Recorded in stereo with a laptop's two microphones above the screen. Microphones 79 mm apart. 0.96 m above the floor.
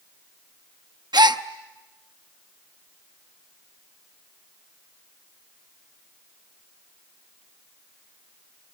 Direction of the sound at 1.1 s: 70° right (ahead or behind).